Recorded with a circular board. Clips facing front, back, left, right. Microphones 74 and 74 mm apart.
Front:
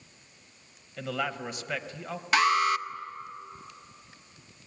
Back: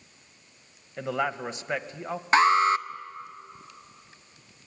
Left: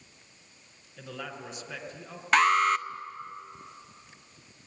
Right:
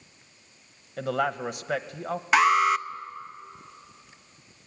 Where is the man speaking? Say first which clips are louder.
Back 4 dB, right 13 dB; 115° right, 1.2 m.